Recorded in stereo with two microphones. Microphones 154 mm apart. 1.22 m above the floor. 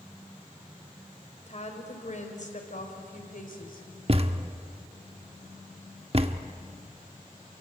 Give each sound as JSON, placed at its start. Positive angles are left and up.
{"t": 1.5, "sound": "a woman speaking", "side_deg": 50, "distance_m": 4.5}
{"t": 4.1, "sound": "a thud", "side_deg": -40, "distance_m": 1.1}